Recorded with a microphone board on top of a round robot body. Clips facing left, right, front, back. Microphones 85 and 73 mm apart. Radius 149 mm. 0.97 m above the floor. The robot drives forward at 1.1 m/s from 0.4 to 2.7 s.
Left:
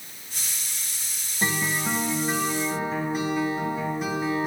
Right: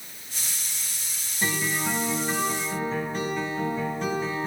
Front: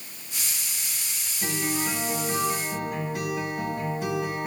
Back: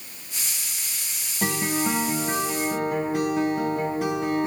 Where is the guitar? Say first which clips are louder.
Left 1 dB, back 4 dB; 155° left, 1.3 m; by 4.5 s 170° left, 2.5 m.